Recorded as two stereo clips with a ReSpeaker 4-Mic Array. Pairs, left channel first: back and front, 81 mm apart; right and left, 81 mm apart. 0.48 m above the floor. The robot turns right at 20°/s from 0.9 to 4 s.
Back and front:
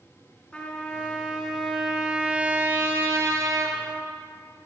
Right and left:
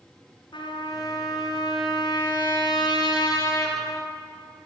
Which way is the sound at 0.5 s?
100° right.